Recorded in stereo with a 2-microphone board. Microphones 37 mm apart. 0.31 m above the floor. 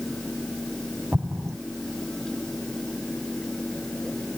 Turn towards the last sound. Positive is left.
turn(degrees=-50)  # may be behind; listen again after turning